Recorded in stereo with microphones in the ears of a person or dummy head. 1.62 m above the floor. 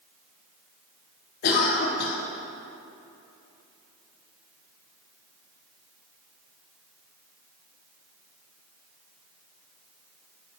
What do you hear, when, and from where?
1.4 s a cough: 60° left (ahead or behind), 0.8 m